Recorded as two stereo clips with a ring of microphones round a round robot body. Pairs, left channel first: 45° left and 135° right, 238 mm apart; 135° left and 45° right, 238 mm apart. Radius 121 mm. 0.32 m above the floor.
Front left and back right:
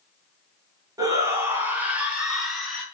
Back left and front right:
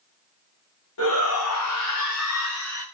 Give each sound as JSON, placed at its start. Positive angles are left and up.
{"t": 1.0, "sound": "a shout", "azimuth_deg": 150, "distance_m": 3.5}